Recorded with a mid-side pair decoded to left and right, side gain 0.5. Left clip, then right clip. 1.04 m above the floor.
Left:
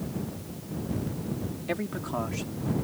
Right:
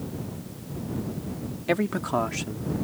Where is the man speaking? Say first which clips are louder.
Right 7 dB; 45° right.